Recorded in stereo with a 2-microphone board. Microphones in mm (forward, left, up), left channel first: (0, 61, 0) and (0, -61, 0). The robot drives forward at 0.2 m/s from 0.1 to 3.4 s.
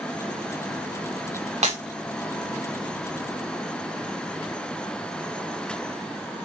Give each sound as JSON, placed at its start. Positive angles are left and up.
{"t": 1.6, "sound": "breaking glass", "side_deg": -65, "distance_m": 7.0}